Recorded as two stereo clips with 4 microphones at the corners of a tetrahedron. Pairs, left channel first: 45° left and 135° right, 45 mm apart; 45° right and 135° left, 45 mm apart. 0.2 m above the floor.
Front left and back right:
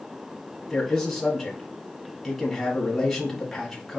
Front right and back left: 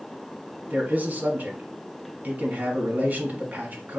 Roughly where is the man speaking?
Behind left.